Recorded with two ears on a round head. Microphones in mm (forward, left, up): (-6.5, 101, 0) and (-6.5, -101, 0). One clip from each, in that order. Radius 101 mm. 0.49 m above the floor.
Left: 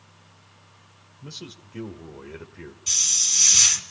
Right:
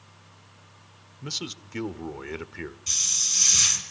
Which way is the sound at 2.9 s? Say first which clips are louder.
Left 3 dB; 15° left (ahead or behind).